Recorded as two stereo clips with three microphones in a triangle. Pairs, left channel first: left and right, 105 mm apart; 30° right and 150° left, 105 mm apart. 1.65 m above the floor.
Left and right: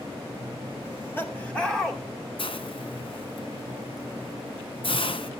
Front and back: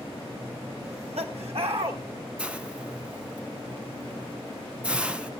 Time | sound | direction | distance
0.8 | laughter | 155° left | 2.5 m
2.4 | a hiss | 75° left | 0.9 m